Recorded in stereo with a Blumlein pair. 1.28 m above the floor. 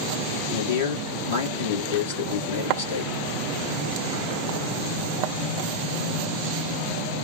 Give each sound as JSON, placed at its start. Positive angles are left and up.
{"t": 0.5, "sound": "a man speaking", "azimuth_deg": 55, "distance_m": 2.0}